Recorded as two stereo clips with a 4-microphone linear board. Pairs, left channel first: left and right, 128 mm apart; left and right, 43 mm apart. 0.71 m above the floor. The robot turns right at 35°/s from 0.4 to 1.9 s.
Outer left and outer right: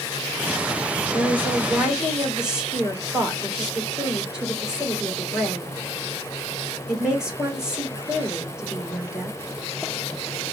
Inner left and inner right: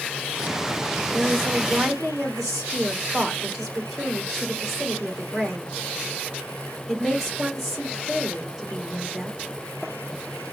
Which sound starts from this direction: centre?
A woman speaking, at 1.1 s.